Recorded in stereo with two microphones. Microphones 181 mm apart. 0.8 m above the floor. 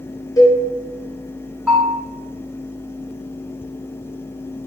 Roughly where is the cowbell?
Centre.